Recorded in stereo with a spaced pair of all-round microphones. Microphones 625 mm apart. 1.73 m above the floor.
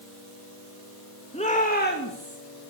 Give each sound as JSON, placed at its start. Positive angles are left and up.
{"t": 1.3, "sound": "a shout", "side_deg": 10, "distance_m": 3.0}